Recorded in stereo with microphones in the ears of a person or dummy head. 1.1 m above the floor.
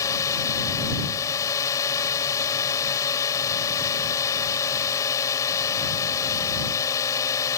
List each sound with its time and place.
0.0 s a drone: 20° left (ahead or behind)